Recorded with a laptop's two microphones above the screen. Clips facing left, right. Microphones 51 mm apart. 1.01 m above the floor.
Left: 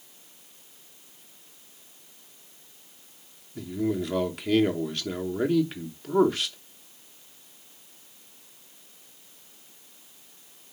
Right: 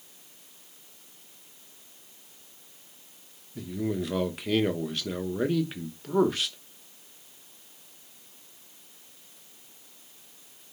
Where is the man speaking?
Centre (ahead or behind), 0.9 m.